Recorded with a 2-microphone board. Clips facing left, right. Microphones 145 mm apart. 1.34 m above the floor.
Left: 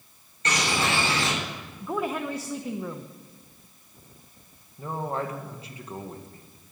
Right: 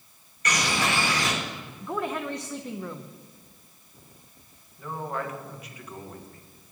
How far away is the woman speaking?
About 0.8 m.